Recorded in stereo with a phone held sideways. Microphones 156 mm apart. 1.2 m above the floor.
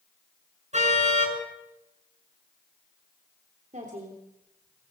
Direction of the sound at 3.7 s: 55° right (ahead or behind).